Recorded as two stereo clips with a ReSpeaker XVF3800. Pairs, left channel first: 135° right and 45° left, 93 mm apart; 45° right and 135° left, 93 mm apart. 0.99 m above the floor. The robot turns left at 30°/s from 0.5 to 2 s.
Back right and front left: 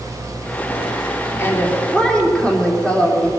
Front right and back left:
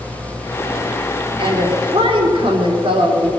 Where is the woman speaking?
165° left, 3 m; by 3.3 s 145° left, 3 m.